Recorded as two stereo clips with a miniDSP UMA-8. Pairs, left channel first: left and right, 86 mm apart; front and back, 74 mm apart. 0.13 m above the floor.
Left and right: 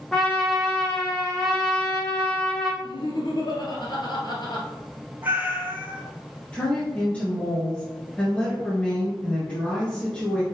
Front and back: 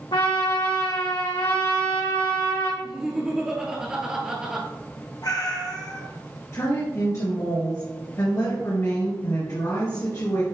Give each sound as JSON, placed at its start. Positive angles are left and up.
{"t": 0.1, "sound": "a trumpet", "azimuth_deg": 5, "distance_m": 1.9}
{"t": 2.8, "sound": "laughter", "azimuth_deg": 100, "distance_m": 2.0}
{"t": 5.2, "sound": "a cat meowing", "azimuth_deg": -25, "distance_m": 1.5}
{"t": 6.5, "sound": "a woman speaking", "azimuth_deg": 20, "distance_m": 2.0}